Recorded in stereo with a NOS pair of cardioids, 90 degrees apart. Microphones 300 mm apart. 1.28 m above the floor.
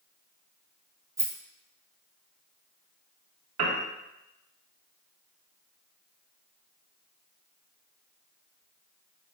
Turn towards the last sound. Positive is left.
turn(degrees=-60)